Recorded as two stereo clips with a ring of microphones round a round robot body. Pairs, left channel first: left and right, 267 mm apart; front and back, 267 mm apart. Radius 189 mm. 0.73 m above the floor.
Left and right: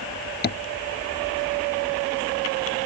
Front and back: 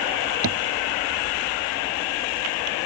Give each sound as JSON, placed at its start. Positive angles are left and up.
{"t": 0.4, "sound": "tapping", "azimuth_deg": 145}